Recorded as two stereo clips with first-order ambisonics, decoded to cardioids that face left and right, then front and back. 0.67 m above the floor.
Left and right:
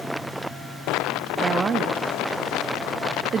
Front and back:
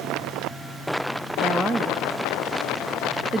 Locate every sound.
1.4 s a woman speaking: 120° right, 0.8 m